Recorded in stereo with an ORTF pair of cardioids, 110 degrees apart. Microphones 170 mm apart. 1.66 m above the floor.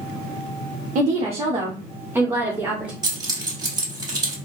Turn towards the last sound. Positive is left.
turn(degrees=-25)